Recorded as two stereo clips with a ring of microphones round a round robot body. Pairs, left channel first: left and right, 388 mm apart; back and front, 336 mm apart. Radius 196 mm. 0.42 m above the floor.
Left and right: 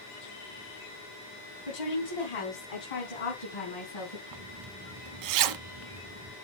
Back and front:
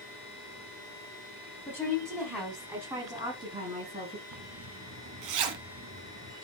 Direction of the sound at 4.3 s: 45° right.